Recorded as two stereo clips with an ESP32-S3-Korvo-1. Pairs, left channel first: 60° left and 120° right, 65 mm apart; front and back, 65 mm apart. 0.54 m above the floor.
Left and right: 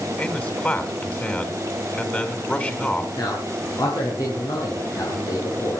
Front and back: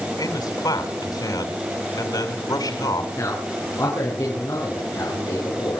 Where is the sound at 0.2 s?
5° right, 5.5 m.